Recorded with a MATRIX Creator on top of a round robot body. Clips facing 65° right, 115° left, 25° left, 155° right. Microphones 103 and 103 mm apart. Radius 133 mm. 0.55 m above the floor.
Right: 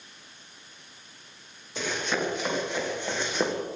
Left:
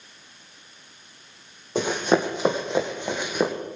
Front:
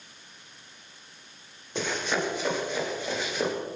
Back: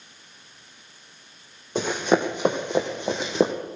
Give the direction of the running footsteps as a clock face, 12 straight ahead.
7 o'clock.